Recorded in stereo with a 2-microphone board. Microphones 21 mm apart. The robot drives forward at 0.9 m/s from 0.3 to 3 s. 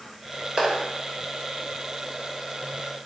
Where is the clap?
45° right (ahead or behind), 2.5 m.